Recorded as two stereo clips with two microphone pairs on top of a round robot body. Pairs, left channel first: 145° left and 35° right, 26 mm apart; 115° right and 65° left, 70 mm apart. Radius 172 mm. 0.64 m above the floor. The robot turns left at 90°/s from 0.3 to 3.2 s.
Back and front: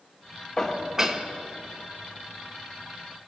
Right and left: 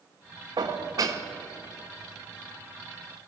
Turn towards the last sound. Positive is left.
turn(degrees=-165)